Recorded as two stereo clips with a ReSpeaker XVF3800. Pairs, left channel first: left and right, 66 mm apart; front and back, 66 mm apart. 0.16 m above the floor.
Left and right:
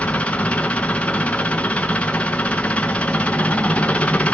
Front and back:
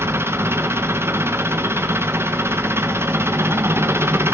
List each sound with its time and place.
0.0 s an engine running: 150° left, 1.3 m